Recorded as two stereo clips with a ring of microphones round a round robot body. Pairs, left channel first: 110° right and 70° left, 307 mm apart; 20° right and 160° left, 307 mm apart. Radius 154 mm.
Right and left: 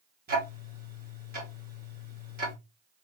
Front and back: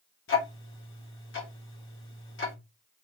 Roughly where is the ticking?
Ahead.